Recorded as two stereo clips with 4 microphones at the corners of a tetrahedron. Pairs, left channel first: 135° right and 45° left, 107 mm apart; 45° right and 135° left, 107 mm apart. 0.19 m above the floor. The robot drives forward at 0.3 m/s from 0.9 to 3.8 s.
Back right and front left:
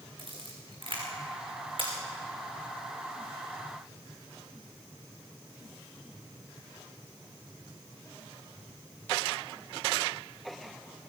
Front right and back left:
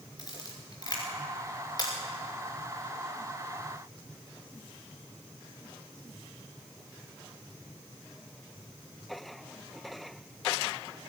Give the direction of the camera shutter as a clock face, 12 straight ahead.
12 o'clock.